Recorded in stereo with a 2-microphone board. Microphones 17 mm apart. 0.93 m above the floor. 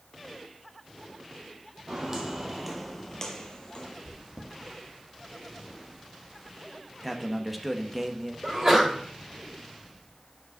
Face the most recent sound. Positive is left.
turn(degrees=-20)  # may be behind; listen again after turning